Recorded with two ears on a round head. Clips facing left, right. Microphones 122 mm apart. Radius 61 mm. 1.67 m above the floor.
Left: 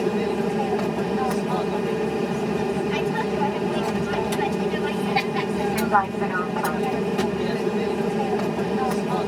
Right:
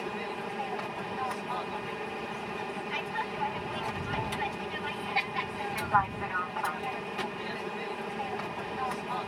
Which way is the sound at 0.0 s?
60° left (ahead or behind).